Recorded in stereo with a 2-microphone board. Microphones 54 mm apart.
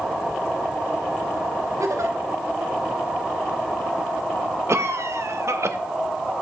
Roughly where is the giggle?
Right.